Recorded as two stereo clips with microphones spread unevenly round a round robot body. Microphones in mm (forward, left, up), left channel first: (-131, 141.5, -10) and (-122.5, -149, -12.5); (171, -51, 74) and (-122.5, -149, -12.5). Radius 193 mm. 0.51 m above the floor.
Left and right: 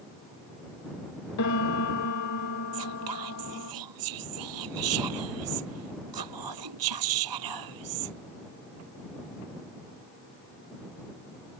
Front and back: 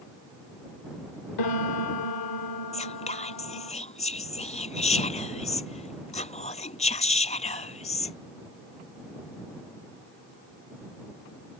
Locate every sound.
1.4 s a piano: 55° left
2.7 s whispering: 50° right